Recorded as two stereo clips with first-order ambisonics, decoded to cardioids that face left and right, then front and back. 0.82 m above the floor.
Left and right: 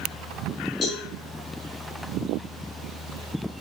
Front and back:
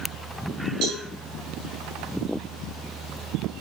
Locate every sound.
0.8 s a cowbell: 155° left, 3.5 m